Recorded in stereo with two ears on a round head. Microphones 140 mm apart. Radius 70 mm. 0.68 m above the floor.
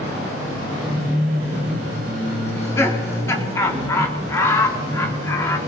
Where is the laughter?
20° left (ahead or behind), 1.5 m.